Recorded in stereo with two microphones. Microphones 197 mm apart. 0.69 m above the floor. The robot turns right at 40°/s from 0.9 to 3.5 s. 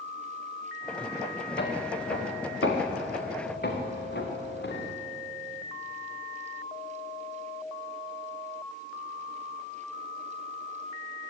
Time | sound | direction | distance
1.6 | footsteps | 65° left (ahead or behind) | 4 m